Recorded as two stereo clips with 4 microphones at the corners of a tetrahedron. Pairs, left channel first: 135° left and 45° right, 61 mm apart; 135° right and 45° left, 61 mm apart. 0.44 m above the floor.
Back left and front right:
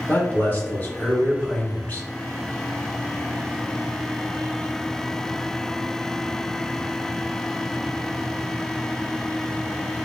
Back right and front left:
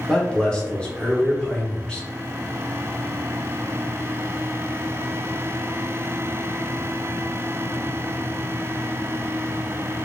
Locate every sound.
0.1 s a man speaking: 165° left, 0.9 m